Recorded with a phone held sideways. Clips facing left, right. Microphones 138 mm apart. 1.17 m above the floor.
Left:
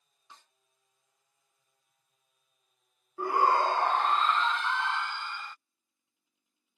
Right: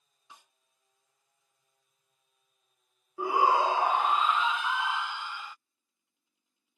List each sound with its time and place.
0.3 s a snare drum: 10° right (ahead or behind)
3.2 s a shout: 5° right (ahead or behind)